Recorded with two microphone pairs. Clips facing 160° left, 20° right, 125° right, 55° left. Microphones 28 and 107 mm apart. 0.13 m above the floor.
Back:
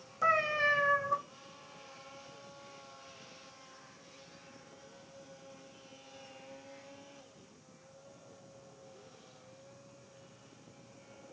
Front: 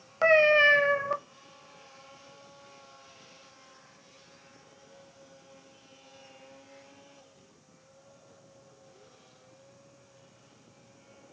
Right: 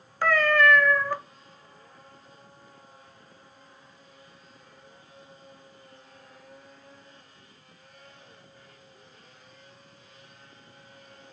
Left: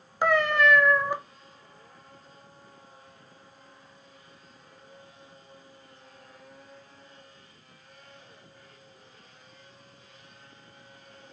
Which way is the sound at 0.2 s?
5° right.